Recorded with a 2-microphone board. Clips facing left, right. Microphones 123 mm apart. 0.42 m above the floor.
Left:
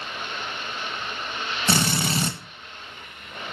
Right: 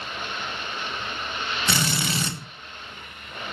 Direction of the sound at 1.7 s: 45° left (ahead or behind).